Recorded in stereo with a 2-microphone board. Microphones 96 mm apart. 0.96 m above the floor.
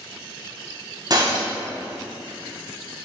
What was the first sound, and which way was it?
Breaking glass, 45° right (ahead or behind).